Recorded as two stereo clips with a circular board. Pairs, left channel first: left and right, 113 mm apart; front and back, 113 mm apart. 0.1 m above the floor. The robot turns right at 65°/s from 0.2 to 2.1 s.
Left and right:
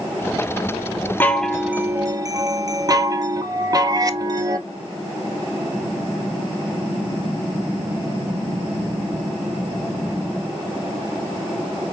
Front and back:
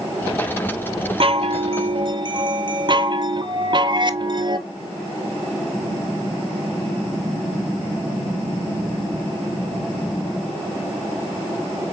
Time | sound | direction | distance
1.2 | a chime | 160° left | 0.6 m